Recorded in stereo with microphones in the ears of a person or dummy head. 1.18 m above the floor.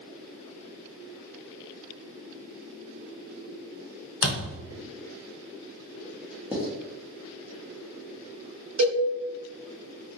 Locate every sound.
4.2 s a thud: 60° left (ahead or behind), 1.3 m
6.5 s writing: 5° right (ahead or behind), 0.9 m
8.8 s a cowbell: 75° right (ahead or behind), 1.0 m